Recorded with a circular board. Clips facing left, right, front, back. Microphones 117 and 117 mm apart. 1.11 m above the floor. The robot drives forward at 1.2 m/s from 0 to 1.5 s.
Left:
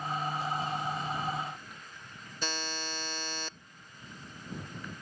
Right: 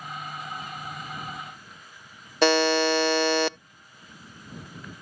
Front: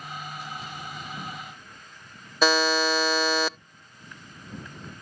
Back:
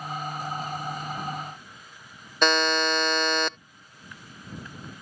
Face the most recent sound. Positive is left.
turn(degrees=-85)